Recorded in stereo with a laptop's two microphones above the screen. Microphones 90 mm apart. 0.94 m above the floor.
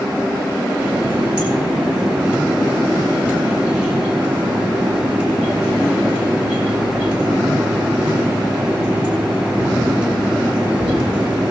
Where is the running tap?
15° right (ahead or behind), 7 m.